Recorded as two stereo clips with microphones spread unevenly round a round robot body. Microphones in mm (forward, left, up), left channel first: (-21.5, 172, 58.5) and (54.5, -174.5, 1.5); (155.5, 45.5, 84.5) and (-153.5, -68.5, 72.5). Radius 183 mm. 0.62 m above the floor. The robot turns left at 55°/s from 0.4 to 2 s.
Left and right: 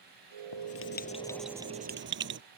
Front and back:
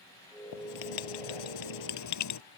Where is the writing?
65° left; by 2.4 s 20° right.